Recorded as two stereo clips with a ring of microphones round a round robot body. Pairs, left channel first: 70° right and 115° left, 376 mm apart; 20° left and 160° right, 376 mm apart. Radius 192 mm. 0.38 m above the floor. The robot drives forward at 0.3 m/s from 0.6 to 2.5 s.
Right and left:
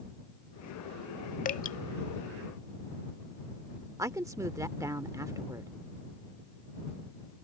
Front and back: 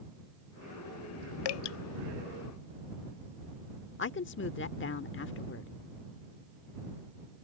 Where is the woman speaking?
40° left.